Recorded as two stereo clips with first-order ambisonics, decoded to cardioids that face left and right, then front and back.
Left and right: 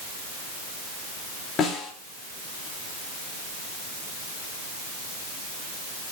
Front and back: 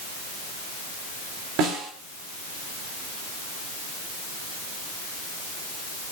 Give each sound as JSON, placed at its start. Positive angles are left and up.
{"t": 1.6, "sound": "a snare drum", "azimuth_deg": 150, "distance_m": 3.5}